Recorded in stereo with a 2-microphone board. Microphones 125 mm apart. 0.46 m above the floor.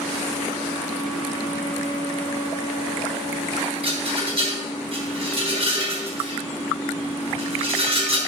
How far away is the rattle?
About 5.5 m.